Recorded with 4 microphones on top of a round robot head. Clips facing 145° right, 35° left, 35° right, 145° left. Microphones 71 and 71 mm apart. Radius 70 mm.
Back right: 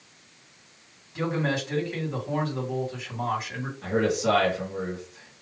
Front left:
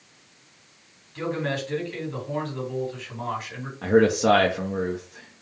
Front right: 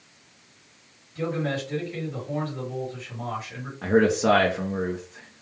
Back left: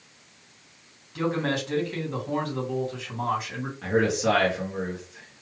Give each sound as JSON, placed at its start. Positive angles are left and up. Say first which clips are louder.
{"t": 1.1, "sound": "a man speaking", "louder": "back right 1 dB, back left 1 dB", "azimuth_deg": 145, "distance_m": 2.5}
{"t": 3.8, "sound": "a man speaking", "louder": "front left 6 dB, front right 4 dB", "azimuth_deg": 15, "distance_m": 1.1}